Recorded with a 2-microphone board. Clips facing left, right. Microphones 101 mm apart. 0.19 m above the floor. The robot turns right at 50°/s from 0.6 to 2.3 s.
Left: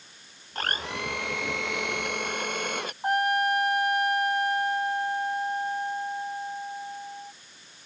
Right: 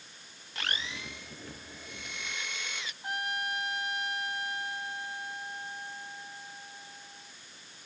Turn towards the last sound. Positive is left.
turn(degrees=50)  # may be behind; listen again after turning